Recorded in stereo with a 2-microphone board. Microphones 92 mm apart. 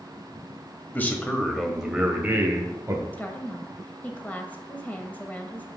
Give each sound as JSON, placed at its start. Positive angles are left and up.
{"t": 0.9, "sound": "a man speaking", "side_deg": 20, "distance_m": 1.2}
{"t": 3.1, "sound": "a woman speaking", "side_deg": 20, "distance_m": 1.1}